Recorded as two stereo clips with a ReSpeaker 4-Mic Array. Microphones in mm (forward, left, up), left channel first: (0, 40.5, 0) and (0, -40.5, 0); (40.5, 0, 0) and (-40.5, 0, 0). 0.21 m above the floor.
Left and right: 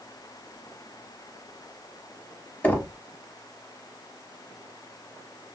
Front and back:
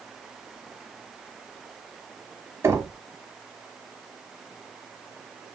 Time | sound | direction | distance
2.6 | knocking | 150° left | 0.8 m